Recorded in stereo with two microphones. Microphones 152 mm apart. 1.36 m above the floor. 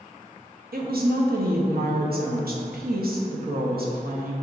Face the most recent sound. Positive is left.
turn(degrees=-85)